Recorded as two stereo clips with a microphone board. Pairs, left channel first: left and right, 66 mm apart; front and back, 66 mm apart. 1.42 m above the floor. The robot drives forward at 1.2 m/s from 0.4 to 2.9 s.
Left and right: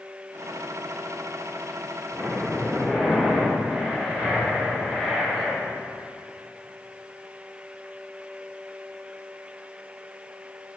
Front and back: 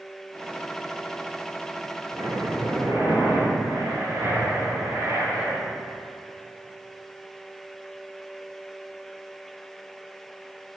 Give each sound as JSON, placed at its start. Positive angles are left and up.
{"t": 2.1, "sound": "breathing", "azimuth_deg": 175, "distance_m": 5.0}